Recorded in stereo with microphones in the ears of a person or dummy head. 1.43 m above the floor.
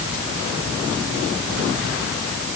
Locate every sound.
Only background noise.